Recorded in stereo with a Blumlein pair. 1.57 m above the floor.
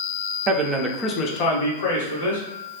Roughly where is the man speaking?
Ahead right.